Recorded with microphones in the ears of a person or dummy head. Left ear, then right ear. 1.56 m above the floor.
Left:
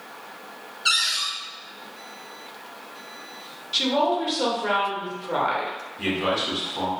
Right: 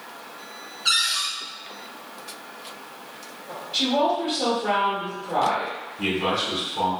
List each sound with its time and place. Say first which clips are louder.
0.8 s a cupboard door: even; 25° left (ahead or behind), 0.8 m
3.7 s a woman speaking: even; 50° left (ahead or behind), 1.1 m
6.0 s a man speaking: even; 10° left (ahead or behind), 1.3 m